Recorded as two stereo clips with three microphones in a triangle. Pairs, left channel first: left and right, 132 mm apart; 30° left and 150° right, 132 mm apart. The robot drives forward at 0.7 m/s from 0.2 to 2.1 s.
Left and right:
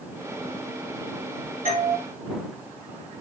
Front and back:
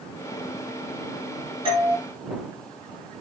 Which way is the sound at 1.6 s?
100° right.